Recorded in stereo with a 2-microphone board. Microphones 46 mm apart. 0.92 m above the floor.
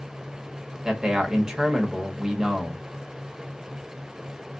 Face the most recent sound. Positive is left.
turn(degrees=-15)  # may be behind; listen again after turning